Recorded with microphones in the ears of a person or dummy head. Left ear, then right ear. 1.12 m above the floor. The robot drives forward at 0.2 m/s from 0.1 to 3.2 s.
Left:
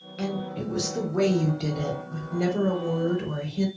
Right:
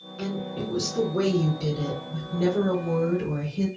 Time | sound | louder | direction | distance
0.2 | a woman speaking | even | 60° left (ahead or behind) | 1.1 m